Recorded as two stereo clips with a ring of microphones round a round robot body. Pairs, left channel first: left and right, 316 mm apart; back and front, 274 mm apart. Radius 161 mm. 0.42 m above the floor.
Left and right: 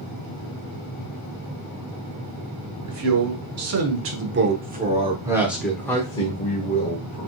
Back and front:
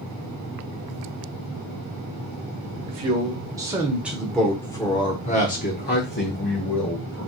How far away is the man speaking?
About 1.6 m.